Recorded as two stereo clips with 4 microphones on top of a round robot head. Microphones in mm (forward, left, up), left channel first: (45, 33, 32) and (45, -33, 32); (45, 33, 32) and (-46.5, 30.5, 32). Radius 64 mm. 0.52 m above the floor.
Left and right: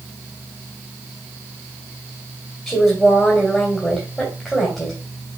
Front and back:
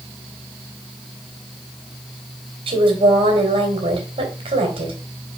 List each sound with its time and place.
2.7 s a woman speaking: straight behind, 3 m